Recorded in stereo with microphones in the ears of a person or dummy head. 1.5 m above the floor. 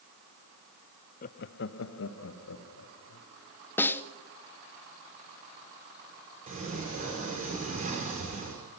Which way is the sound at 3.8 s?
15° left (ahead or behind).